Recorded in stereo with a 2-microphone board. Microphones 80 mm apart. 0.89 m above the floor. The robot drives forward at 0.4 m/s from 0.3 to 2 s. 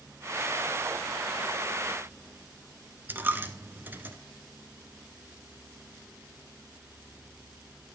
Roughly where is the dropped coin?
Right.